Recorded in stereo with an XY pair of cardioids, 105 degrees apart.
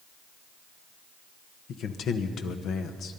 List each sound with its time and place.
1.7 s a man speaking: 70° left, 1.3 m